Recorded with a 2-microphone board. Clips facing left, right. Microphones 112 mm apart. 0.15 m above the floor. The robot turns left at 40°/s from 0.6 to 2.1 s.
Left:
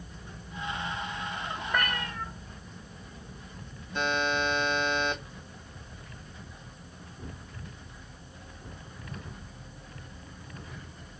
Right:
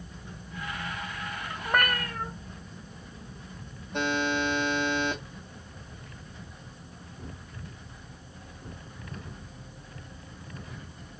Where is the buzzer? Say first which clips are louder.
Right 1 dB; 65° right (ahead or behind), 2.0 m.